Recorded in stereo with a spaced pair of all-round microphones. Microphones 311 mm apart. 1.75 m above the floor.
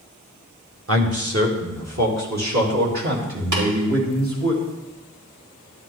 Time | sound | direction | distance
0.9 | a man speaking | 45° right (ahead or behind) | 1.5 m
3.5 | tapping | 70° right (ahead or behind) | 3.5 m